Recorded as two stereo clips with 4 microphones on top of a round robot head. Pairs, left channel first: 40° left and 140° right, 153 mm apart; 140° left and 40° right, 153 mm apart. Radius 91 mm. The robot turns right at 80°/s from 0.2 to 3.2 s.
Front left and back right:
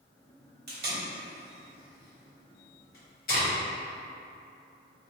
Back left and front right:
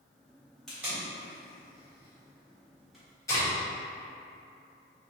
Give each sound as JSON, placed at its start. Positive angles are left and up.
{"t": 0.7, "sound": "tape being pulled", "azimuth_deg": -135, "distance_m": 1.3}